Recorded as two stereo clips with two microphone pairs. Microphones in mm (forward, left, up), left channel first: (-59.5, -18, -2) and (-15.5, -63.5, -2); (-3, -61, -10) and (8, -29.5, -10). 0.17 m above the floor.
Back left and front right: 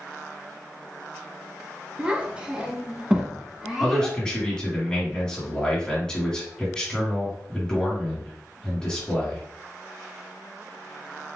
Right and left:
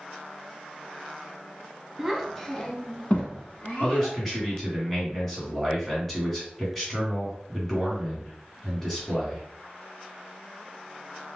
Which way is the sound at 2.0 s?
10° right.